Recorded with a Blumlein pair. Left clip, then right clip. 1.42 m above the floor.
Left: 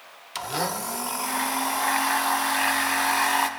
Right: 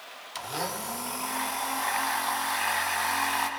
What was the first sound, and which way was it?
A blender, 15° left.